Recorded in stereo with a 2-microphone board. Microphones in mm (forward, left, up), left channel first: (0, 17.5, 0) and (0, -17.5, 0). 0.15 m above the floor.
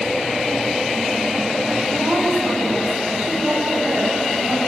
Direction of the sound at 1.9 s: 55° right (ahead or behind).